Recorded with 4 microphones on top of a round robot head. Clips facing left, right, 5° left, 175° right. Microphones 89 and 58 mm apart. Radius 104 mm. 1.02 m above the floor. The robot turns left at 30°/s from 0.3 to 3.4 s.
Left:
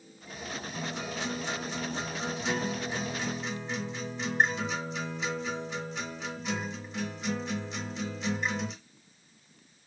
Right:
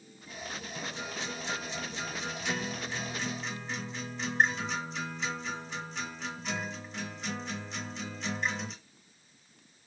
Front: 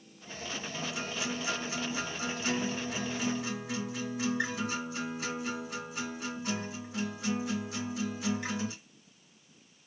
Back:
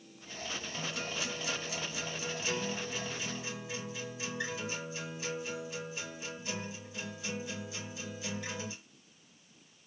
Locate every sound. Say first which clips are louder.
0.7 s a guitar: left 4 dB, front 2 dB; 80° left, 2 m; by 8.7 s straight ahead, 2 m